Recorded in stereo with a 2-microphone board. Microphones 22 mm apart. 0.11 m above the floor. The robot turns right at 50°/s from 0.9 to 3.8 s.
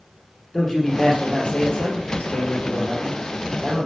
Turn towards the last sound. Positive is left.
turn(degrees=165)